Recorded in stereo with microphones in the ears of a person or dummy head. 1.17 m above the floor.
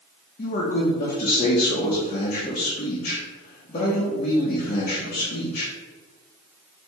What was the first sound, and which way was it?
A man speaking, 35° left (ahead or behind).